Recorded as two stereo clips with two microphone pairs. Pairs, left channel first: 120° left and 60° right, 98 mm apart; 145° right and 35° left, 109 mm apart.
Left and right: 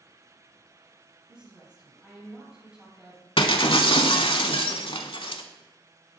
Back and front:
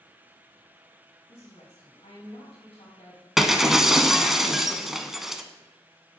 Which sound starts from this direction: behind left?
Breaking glass, at 3.4 s.